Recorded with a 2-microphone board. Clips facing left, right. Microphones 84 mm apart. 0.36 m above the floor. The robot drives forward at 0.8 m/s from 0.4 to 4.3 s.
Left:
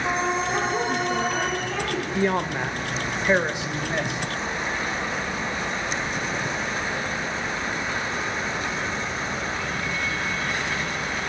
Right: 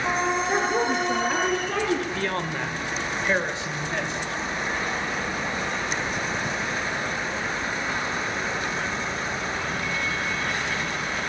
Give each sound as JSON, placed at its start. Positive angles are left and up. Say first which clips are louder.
{"t": 0.5, "sound": "a woman speaking", "louder": "right 1 dB", "side_deg": -45, "distance_m": 6.0}
{"t": 2.1, "sound": "a man speaking", "louder": "left 4 dB", "side_deg": 15, "distance_m": 1.4}